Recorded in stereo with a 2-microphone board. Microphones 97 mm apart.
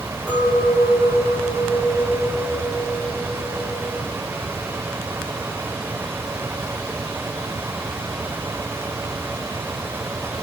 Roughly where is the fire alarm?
I don't hear a fire alarm.